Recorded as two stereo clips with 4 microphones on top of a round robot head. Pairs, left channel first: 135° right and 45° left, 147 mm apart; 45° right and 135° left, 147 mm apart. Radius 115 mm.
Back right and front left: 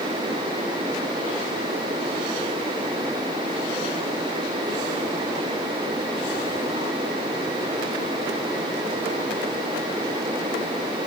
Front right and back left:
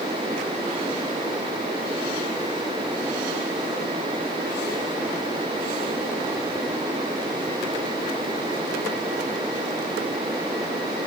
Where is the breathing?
I don't hear breathing.